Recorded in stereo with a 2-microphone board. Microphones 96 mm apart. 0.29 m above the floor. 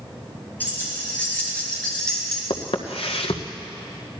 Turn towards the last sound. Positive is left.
turn(degrees=80)